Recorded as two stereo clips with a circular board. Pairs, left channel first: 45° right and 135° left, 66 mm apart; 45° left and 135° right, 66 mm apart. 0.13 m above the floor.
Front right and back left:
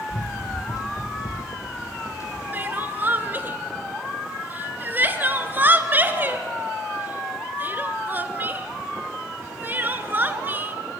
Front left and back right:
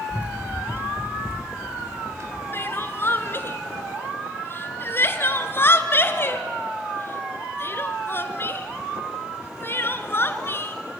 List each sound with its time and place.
0.1 s running footsteps: 65° right, 0.9 m; by 2.4 s 90° right, 2.5 m
2.5 s crying: 85° left, 0.9 m